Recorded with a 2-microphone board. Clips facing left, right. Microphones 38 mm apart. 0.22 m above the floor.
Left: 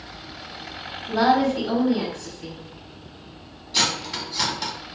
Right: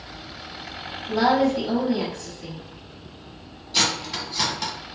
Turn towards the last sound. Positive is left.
turn(degrees=0)  # may be behind; listen again after turning